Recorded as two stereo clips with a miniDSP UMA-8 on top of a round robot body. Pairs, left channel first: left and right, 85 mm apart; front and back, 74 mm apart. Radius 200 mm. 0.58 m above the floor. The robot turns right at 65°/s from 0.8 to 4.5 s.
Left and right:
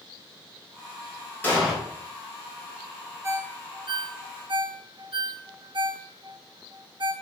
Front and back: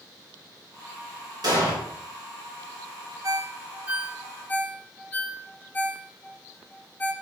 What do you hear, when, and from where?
1.4 s an explosion: 160° left, 3 m; by 1.8 s straight behind, 3 m
3.2 s a ringtone: 145° right, 0.9 m; by 7.1 s 65° right, 0.9 m